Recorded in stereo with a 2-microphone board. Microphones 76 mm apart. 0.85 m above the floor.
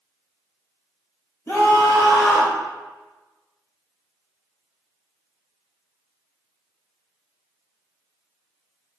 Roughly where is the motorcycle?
No motorcycle in this recording.